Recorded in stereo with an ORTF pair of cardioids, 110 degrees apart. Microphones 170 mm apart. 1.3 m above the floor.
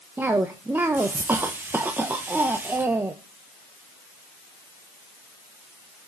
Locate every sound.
0.2 s a cough: 10° right, 0.9 m